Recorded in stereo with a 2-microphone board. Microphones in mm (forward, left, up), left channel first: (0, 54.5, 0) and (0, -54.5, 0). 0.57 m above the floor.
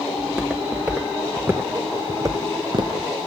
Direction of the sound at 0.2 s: 5° right (ahead or behind).